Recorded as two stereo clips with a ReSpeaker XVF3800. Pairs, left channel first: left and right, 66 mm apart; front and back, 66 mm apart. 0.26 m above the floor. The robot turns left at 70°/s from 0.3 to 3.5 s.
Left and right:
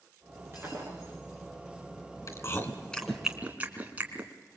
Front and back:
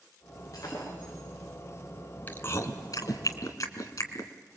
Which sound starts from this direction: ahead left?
Chewing, at 2.3 s.